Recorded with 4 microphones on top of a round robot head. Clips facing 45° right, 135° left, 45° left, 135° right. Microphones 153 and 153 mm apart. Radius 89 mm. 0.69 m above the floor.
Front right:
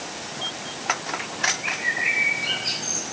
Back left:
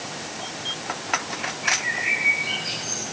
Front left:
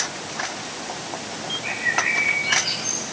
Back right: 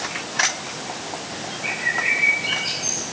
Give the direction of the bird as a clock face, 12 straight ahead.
2 o'clock.